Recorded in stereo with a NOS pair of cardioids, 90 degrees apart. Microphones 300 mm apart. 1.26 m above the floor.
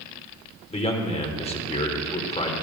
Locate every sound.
0.7 s a man speaking: 20° left, 3.5 m